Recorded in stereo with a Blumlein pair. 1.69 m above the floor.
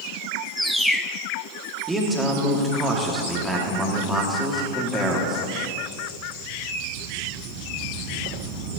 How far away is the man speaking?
About 1.8 m.